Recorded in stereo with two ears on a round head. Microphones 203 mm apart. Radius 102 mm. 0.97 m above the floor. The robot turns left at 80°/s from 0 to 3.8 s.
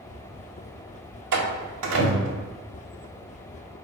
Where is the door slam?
50° right (ahead or behind), 1.3 m; by 2.5 s 35° right (ahead or behind), 1.3 m.